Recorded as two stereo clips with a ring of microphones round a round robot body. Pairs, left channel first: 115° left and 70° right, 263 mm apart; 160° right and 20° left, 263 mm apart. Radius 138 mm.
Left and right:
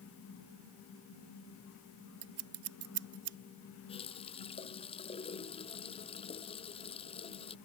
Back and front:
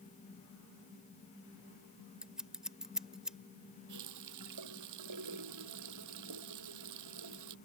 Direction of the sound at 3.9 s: 40° left.